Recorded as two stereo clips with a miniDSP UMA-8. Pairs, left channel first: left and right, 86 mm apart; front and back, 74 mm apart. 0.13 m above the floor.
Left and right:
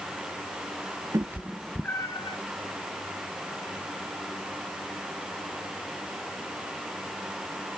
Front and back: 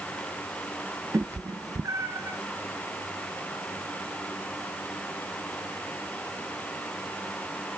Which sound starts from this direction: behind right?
A cat meowing, at 1.1 s.